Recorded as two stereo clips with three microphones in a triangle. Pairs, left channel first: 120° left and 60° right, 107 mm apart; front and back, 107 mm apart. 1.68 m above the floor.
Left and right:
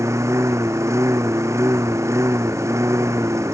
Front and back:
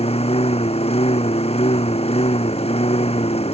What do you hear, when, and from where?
0.0 s a lawn mower: straight ahead